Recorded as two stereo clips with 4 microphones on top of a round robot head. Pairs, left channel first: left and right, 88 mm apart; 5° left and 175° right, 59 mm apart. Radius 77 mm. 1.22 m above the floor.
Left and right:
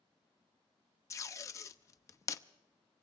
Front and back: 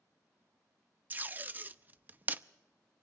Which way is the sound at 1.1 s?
135° left.